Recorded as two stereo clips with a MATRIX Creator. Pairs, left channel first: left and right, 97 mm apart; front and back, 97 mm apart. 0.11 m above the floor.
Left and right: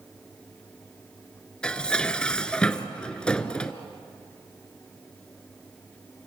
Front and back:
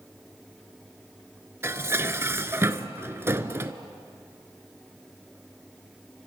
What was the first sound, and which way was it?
Dishes clattering, 155° left.